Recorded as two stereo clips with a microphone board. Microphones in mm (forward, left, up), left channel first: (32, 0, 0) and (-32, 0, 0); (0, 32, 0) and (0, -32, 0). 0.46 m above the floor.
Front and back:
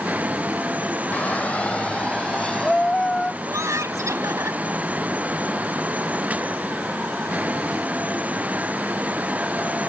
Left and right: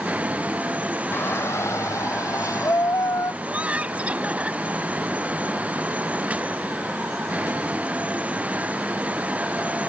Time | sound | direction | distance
1.1 | a shout | 60° left | ?
3.4 | laughter | 155° right | ?